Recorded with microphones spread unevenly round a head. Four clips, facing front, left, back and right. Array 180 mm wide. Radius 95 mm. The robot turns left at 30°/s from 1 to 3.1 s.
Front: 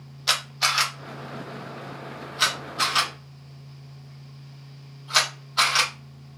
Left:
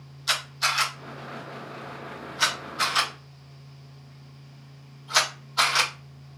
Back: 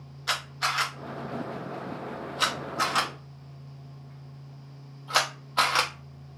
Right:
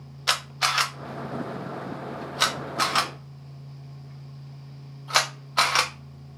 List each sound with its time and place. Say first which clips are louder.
0.3 s a camera shutter: right 2 dB, front 3 dB; 60° right, 0.6 m; by 5.9 s 125° right, 0.6 m